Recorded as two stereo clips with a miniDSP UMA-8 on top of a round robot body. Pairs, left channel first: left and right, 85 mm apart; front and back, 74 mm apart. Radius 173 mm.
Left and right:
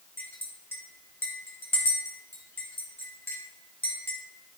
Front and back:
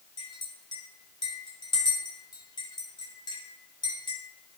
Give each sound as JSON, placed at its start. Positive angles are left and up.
{"t": 0.2, "sound": "a clink", "azimuth_deg": 25, "distance_m": 3.0}